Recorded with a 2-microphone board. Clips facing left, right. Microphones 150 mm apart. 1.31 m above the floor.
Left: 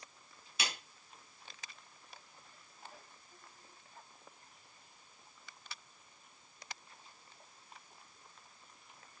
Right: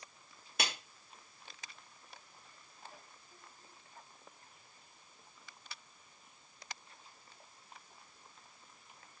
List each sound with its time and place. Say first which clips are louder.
0.6 s a clap: right 3 dB; 55° right (ahead or behind), 3 m